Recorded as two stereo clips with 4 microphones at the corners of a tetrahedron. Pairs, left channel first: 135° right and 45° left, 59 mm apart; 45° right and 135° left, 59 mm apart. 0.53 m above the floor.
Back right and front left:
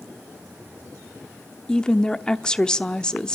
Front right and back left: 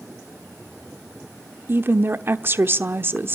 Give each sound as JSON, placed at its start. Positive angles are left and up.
{"t": 1.7, "sound": "a woman speaking", "azimuth_deg": 160, "distance_m": 1.0}